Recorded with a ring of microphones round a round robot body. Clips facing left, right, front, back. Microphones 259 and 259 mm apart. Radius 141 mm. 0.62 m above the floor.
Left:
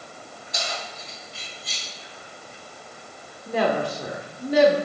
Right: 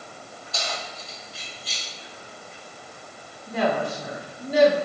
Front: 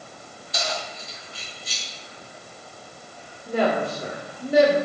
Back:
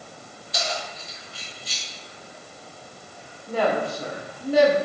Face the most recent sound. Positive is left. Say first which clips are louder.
# left 1 dB, front 1 dB
turn(degrees=70)